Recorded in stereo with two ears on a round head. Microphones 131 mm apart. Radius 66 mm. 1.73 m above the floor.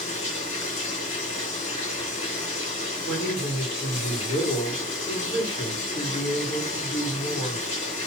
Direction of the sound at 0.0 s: 50° left (ahead or behind).